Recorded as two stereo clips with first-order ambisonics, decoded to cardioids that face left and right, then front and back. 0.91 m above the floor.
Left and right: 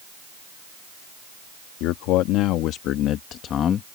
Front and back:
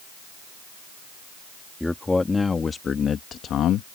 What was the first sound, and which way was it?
A man speaking, 85° left.